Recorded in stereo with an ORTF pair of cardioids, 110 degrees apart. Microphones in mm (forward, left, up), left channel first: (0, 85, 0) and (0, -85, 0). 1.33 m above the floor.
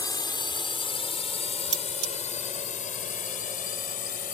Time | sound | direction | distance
0.0 | a drone | 25° left | ?
1.7 | cutlery clinking | 35° right | ?